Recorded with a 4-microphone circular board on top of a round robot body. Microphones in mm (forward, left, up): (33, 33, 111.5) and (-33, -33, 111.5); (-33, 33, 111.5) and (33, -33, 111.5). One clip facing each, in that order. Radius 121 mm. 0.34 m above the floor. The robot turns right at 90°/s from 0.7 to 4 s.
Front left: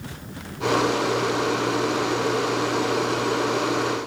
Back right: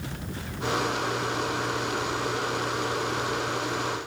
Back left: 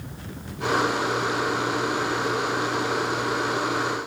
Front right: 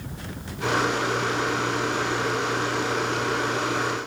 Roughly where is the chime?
I don't hear a chime.